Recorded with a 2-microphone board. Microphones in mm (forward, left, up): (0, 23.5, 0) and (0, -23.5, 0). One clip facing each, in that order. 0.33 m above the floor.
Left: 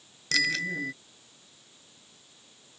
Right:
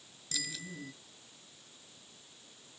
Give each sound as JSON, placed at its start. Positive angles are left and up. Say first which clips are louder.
{"t": 0.3, "sound": "a bicycle bell", "louder": "left 15 dB", "side_deg": 65}